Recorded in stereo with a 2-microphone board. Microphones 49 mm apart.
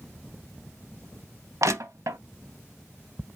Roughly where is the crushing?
Right.